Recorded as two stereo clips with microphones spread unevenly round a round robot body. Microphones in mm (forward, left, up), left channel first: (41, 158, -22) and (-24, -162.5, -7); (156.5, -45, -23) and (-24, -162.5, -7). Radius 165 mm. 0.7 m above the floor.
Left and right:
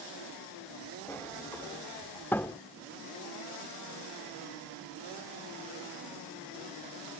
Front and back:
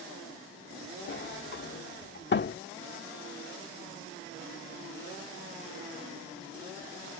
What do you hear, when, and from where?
1.1 s a sliding door: 5° right